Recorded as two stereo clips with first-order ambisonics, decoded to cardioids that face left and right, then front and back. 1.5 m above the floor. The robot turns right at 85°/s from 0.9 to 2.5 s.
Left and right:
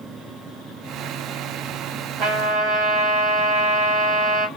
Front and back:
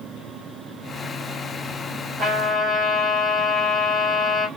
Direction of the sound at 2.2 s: 125° right.